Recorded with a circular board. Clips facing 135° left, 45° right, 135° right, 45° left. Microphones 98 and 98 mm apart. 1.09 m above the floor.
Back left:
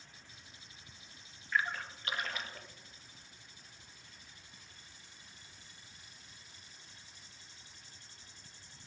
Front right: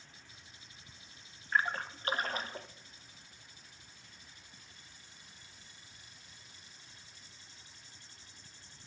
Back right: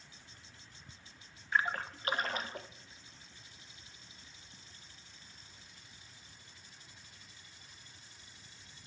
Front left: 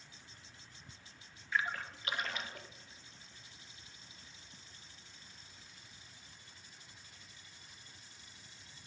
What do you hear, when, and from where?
1.5 s a splash: 90° right, 0.6 m